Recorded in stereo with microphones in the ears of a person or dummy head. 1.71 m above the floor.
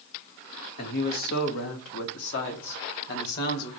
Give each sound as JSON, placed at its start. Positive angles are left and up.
{"t": 0.8, "sound": "a man speaking", "side_deg": 55, "distance_m": 1.7}